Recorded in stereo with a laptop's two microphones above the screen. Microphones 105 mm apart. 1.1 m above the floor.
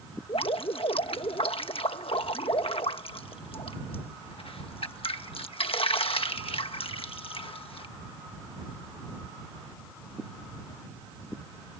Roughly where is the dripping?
Left.